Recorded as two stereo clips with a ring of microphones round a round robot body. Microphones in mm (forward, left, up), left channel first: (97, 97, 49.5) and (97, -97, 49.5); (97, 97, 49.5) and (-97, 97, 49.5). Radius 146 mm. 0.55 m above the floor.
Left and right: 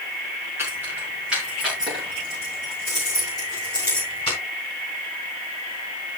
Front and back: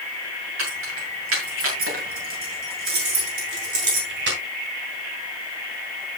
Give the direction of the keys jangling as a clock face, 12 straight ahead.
6 o'clock.